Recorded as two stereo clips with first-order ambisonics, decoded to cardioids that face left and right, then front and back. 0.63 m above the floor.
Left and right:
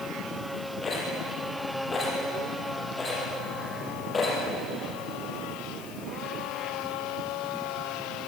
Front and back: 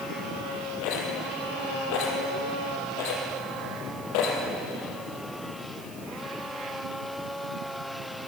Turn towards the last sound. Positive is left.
turn(degrees=15)